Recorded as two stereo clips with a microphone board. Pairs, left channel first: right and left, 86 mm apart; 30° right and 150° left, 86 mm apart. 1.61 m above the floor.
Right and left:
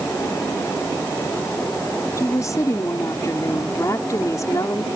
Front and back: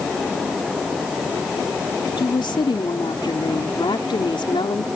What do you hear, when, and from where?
2.2 s a woman speaking: 40° right